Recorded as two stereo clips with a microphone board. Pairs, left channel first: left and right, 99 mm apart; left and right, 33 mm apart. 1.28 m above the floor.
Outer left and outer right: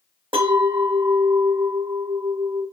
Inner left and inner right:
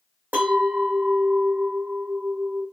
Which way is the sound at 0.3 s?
60° right (ahead or behind).